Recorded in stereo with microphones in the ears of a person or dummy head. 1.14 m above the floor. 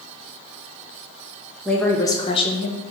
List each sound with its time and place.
1.6 s a woman speaking: 5° left (ahead or behind), 0.7 m; by 2.8 s 45° left (ahead or behind), 0.8 m